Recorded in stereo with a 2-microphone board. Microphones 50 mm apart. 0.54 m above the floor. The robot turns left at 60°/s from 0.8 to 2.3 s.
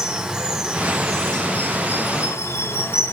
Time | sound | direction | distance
0.0 | running water | 170° right | 3 m